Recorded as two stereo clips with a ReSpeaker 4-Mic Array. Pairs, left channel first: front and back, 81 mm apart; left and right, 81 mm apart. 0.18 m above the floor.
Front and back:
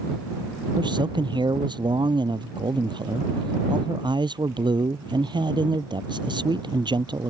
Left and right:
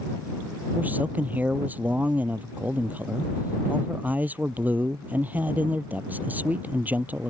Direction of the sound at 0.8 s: 160° right.